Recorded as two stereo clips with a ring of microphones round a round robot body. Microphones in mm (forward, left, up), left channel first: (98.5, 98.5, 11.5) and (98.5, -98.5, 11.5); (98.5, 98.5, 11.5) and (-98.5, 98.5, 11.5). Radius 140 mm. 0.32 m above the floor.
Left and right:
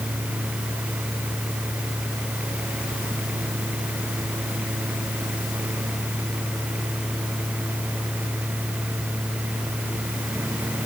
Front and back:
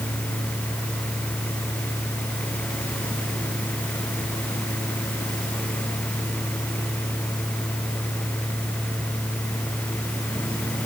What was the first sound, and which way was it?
Only background noise.